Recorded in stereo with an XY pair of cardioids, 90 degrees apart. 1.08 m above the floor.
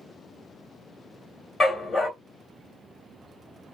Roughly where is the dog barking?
Ahead left.